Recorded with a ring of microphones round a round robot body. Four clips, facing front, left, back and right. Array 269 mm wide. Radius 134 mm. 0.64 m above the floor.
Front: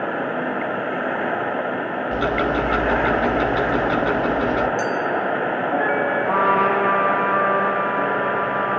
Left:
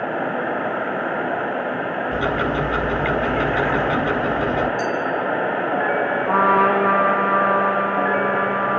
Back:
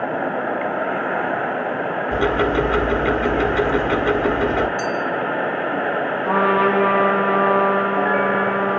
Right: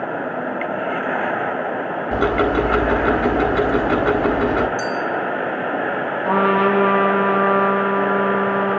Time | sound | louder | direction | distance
2.1 | ticking | right 6 dB, back 2 dB | 100° right | 1.6 m
4.8 | a clink | even, even | 80° right | 3.5 m
6.2 | a trumpet | even, back 2 dB | 115° right | 7 m